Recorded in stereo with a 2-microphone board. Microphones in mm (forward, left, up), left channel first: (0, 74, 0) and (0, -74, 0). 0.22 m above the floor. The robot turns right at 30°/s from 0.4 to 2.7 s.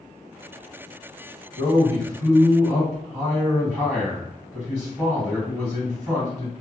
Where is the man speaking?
145° left, 1.8 m; by 6.5 s straight behind, 1.8 m.